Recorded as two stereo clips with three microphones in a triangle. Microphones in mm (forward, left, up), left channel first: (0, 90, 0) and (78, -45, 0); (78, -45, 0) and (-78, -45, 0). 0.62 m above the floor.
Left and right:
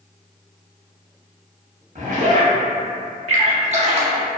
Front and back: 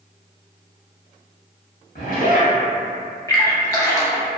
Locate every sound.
1.9 s a zipper: 20° right, 1.0 m
3.3 s a splash: 60° right, 0.5 m